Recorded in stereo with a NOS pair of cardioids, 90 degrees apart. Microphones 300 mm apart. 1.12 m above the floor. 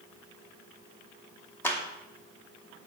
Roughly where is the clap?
Ahead.